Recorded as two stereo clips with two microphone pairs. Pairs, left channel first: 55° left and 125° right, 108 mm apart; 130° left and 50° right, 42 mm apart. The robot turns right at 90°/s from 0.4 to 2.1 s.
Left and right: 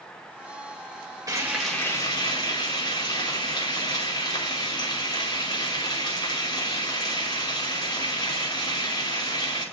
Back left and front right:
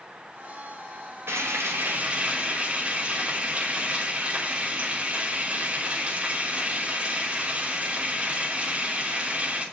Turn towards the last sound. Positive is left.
turn(degrees=10)